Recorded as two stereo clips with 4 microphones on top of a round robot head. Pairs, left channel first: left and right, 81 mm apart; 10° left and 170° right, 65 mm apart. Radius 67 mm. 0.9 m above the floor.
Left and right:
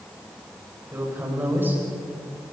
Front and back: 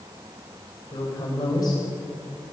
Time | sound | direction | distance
0.9 | a woman speaking | 25° right | 6 m